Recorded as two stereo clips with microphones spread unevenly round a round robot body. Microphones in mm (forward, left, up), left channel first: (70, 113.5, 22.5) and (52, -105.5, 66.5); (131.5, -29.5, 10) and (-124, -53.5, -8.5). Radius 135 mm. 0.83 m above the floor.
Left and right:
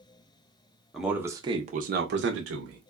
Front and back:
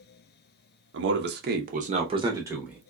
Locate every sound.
0.9 s a man speaking: 165° left, 0.9 m; by 2.8 s 90° right, 1.0 m